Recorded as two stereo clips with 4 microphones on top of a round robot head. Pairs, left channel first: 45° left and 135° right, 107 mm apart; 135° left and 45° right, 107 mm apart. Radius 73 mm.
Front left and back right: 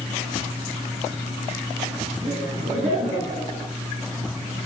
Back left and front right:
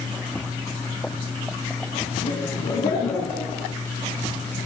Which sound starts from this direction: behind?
Laughter, at 2.2 s.